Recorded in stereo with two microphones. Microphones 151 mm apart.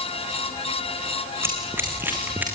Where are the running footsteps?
15° right (ahead or behind), 4 m; by 2.4 s 10° right (ahead or behind), 4.5 m.